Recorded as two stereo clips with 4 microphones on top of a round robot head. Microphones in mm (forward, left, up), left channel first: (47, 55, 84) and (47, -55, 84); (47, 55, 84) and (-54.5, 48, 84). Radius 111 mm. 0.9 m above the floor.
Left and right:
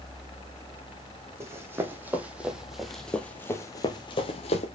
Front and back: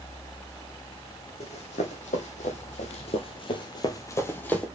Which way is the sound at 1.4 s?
25° right.